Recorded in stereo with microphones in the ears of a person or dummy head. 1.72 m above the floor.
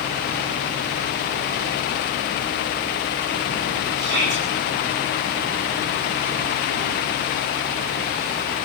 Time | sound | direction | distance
4.0 | a shout | 60° right (ahead or behind) | 10 m